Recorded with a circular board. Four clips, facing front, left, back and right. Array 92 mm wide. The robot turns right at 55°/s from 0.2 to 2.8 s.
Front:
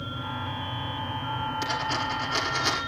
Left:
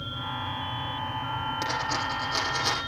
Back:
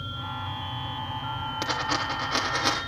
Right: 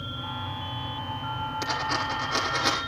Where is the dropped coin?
160° left, 6 m; by 2.8 s 135° right, 6 m.